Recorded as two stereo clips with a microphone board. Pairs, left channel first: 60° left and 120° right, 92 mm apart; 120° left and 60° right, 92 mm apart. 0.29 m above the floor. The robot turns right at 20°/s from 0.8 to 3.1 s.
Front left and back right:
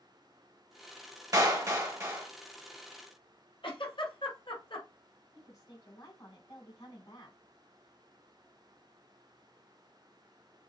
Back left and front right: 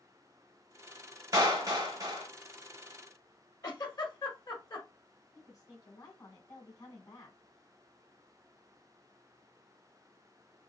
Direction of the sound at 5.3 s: 95° left.